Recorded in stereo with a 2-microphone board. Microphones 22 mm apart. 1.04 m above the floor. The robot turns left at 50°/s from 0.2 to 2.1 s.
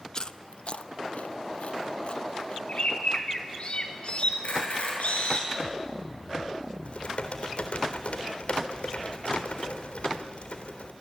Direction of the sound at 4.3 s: 80° left.